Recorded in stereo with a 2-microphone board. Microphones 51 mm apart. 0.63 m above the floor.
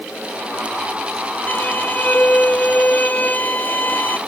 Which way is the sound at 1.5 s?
35° left (ahead or behind).